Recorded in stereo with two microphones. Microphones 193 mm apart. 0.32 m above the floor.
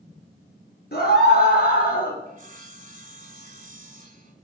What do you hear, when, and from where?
0.9 s a scream: 55° left (ahead or behind), 5.5 m; by 2.2 s 45° left (ahead or behind), 5.5 m
2.3 s sawing: 45° right (ahead or behind), 1.6 m